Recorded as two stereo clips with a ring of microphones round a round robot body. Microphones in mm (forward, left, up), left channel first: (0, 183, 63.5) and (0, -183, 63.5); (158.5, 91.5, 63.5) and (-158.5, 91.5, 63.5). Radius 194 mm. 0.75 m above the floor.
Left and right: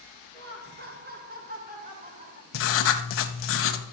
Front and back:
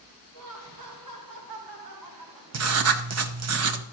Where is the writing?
145° left, 1.0 m.